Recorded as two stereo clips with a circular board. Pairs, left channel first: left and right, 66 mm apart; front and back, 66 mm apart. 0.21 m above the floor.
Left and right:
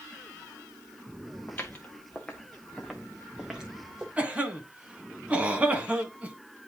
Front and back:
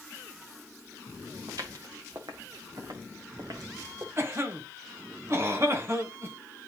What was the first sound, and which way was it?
Footsteps, 155° left.